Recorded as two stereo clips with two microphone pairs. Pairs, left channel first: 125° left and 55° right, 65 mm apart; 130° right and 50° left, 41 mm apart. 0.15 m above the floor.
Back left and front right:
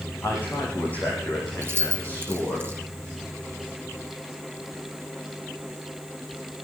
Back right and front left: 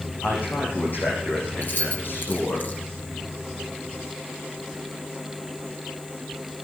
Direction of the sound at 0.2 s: 170° right.